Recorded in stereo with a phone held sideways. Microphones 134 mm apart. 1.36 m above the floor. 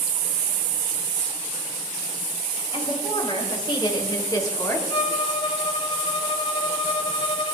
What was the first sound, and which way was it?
A woman speaking, 40° left (ahead or behind).